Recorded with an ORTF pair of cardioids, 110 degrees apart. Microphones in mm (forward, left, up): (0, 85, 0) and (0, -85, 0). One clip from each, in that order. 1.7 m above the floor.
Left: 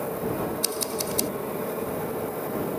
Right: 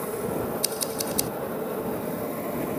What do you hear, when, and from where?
0.6 s scissors: straight ahead